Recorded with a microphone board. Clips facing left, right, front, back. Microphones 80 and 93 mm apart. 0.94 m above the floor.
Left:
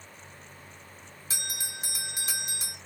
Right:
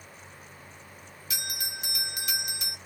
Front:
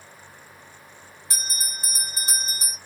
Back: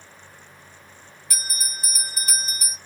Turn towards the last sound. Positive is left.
turn(degrees=50)